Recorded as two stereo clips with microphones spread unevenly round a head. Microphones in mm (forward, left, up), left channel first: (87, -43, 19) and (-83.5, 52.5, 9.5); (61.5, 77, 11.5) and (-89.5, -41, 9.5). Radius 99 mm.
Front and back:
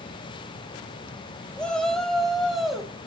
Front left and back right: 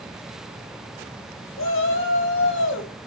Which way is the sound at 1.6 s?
55° left.